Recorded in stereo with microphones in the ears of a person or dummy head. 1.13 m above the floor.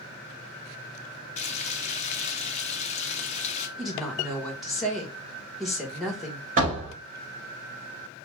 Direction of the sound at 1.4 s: 35° left (ahead or behind).